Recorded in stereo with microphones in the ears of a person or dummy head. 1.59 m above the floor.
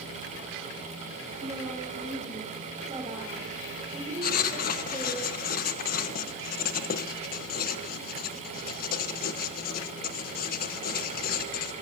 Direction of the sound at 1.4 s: 20° right (ahead or behind).